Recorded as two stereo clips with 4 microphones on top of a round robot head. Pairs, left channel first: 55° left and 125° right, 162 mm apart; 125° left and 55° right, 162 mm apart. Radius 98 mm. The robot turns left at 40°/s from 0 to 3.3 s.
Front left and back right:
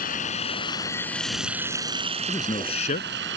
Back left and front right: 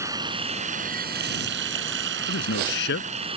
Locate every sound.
0.0 s running water: 20° left; by 3.4 s 115° right
2.3 s a man speaking: 130° left; by 3.1 s 95° left